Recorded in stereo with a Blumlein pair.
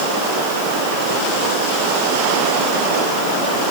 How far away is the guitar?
I don't hear a guitar.